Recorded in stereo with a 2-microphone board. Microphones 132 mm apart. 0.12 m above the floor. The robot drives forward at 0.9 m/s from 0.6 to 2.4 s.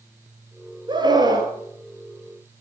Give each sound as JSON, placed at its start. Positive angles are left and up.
{"t": 0.9, "sound": "a scream", "side_deg": -35, "distance_m": 2.0}